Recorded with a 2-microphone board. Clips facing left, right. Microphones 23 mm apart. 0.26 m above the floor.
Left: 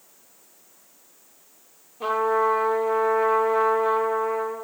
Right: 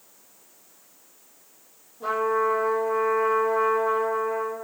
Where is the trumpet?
75° left (ahead or behind), 8.5 m.